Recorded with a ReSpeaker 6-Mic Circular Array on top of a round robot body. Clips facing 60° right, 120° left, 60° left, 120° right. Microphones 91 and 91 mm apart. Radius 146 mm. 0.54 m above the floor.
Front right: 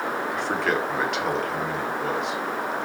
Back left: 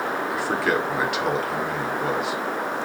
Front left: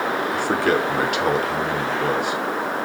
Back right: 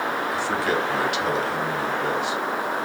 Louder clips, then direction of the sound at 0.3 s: Back left 2 dB, front left 5 dB; 35° left.